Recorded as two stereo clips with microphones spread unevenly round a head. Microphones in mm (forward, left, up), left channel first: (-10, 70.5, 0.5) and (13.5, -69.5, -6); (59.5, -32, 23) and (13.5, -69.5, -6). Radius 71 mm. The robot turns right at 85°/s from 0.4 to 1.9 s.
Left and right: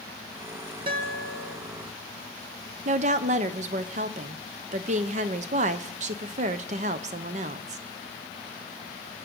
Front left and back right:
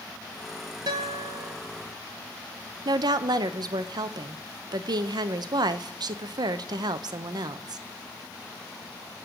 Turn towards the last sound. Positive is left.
turn(degrees=-120)